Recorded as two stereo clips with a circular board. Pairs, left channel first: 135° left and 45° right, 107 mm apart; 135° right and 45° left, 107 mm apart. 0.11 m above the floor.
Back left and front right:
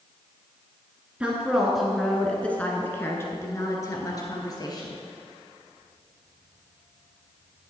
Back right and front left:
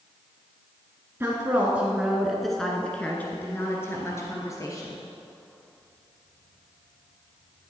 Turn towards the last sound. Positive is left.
turn(degrees=175)